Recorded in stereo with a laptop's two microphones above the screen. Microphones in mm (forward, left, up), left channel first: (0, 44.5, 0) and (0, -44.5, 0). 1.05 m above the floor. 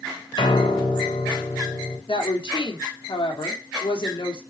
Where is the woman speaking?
70° left (ahead or behind), 3 m.